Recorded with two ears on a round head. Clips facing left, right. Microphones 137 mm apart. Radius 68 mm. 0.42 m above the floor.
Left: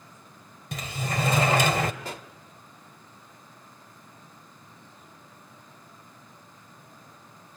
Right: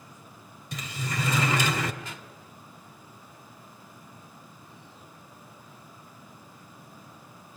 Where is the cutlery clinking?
No cutlery clinking in this recording.